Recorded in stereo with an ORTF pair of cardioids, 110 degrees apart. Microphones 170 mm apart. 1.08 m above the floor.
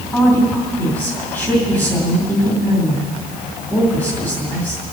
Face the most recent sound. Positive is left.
turn(degrees=10)